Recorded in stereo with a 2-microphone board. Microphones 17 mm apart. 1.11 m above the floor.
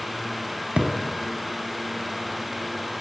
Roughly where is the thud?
Right.